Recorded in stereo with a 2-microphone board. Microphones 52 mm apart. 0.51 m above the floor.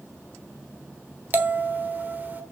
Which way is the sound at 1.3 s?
35° right (ahead or behind).